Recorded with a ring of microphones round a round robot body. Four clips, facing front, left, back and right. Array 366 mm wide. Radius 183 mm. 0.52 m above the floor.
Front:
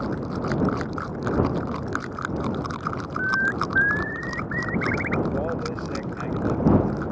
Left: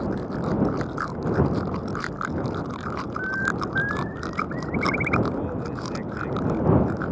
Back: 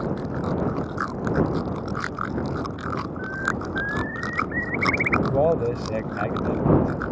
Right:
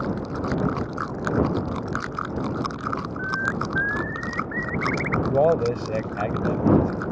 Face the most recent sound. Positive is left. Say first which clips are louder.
# right 10 dB, back 6 dB
turn(degrees=-120)